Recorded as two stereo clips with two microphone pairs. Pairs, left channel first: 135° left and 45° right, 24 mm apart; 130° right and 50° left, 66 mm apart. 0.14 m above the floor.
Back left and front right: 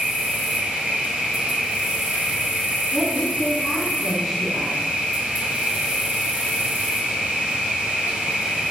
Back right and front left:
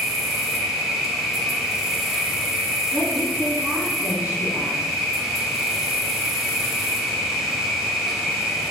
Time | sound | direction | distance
0.0 | an insect | 40° right | 0.9 m
2.9 | a woman speaking | 45° left | 1.4 m